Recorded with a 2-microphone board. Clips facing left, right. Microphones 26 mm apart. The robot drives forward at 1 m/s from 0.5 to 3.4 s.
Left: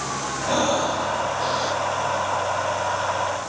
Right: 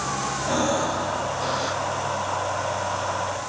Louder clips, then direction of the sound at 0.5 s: Left 3 dB; 25° left (ahead or behind).